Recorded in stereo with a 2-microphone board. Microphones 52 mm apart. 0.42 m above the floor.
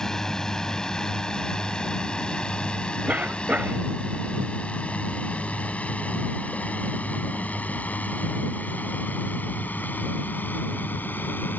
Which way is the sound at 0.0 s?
10° left (ahead or behind).